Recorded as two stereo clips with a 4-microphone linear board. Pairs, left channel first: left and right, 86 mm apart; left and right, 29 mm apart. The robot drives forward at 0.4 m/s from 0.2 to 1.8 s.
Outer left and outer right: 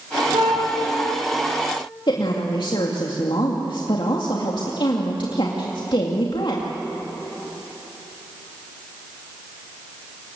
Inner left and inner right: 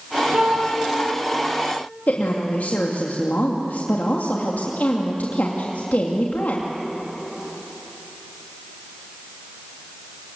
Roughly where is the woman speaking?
Left.